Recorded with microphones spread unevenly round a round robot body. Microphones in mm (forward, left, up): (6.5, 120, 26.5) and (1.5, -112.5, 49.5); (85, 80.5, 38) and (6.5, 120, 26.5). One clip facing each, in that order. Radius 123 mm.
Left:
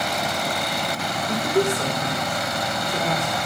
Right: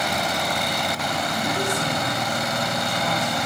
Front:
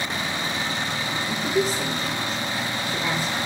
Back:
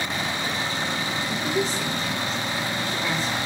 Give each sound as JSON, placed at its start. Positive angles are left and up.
{"t": 1.3, "sound": "a woman speaking", "azimuth_deg": 50, "distance_m": 1.9}